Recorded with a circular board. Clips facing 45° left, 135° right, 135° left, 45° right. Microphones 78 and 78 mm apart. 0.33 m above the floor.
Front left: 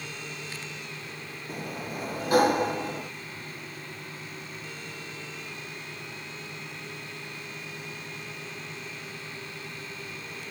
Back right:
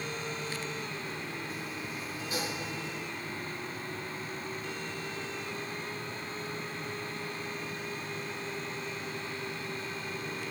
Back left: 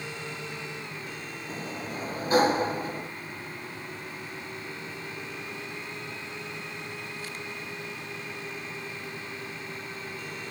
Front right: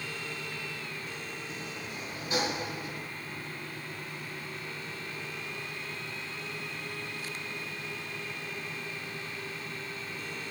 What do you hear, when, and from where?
1.5 s a sliding door: 80° left